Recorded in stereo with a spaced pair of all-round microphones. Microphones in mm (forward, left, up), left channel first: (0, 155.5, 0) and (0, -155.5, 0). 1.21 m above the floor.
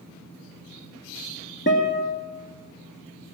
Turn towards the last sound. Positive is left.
turn(degrees=35)  # may be behind; listen again after turning